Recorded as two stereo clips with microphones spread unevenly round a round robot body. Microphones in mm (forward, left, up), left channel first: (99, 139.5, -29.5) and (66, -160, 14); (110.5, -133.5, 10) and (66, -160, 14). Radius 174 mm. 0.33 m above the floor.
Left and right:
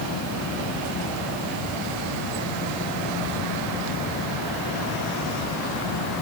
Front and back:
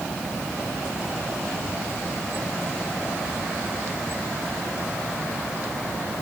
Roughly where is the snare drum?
I don't hear a snare drum.